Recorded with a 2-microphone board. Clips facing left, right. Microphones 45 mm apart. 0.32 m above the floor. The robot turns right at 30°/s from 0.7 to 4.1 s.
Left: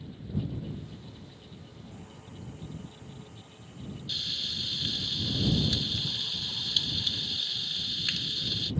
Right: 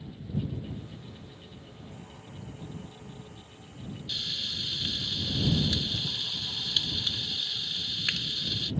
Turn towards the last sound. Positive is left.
turn(degrees=-25)  # may be behind; listen again after turning